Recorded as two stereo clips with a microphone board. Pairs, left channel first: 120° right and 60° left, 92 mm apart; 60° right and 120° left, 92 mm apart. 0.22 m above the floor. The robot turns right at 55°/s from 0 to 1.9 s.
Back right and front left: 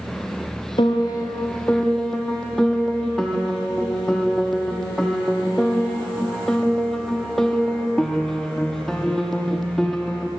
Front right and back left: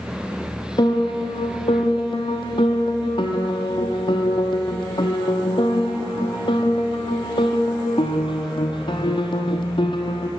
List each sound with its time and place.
0.8 s a piano: 95° right, 1.2 m; by 10.3 s 35° right, 1.2 m